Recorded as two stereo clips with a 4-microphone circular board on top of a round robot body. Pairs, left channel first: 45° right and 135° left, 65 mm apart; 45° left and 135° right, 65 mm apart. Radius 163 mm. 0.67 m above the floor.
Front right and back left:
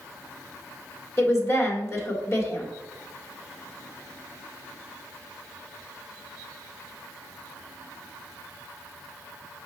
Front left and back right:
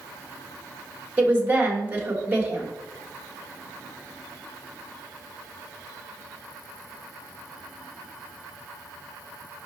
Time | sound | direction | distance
1.2 | a woman speaking | 75° right | 1.5 m